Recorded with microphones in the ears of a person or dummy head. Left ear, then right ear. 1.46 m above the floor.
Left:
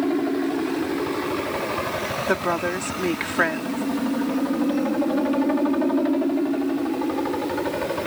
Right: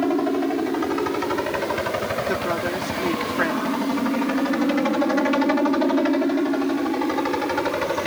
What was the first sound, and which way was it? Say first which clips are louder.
A helicopter: right 2 dB; 50° right (ahead or behind).